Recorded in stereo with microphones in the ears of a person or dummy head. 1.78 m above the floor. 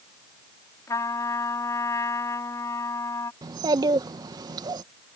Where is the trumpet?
15° left (ahead or behind).